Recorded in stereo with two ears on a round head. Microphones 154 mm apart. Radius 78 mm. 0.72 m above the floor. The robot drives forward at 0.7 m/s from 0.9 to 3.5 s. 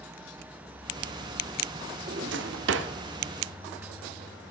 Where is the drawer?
55° right (ahead or behind), 0.8 m; by 2.9 s 75° right (ahead or behind), 0.7 m.